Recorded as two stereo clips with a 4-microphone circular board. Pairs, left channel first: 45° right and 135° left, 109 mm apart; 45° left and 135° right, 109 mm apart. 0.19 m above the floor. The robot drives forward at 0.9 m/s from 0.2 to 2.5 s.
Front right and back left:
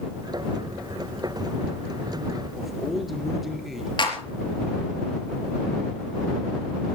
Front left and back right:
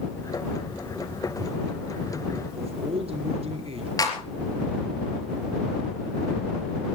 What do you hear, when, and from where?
2.5 s a man speaking: 135° right, 4 m
4.0 s a clap: 5° right, 4 m